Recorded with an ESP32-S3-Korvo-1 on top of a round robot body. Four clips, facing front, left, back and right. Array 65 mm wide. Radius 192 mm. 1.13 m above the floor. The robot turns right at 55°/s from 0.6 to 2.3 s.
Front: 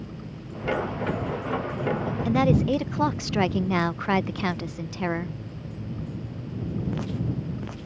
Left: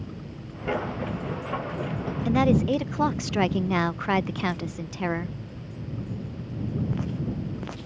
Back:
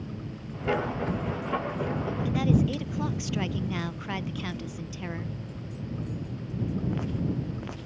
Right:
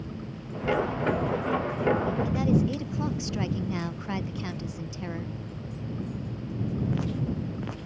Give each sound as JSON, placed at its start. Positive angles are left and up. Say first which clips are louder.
{"t": 2.2, "sound": "a woman speaking", "louder": "left 8 dB, front 5 dB", "azimuth_deg": 40}